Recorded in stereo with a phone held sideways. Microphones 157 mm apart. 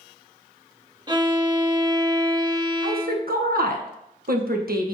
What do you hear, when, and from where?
1.1 s a violin: 30° right (ahead or behind), 1.0 m
2.8 s a woman speaking: 70° right (ahead or behind), 1.3 m